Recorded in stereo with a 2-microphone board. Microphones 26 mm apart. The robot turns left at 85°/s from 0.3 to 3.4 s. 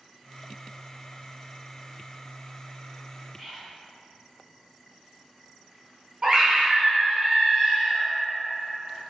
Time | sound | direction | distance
3.4 | whispering | 15° left (ahead or behind) | 1.8 m
6.2 | a scream | 35° right (ahead or behind) | 1.3 m